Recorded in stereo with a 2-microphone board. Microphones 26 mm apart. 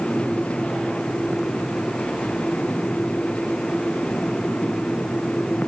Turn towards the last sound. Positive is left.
No sound to turn to.